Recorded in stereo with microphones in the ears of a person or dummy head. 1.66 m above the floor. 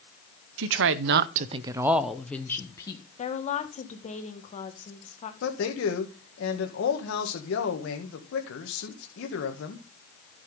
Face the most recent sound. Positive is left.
turn(degrees=70)  # may be behind; listen again after turning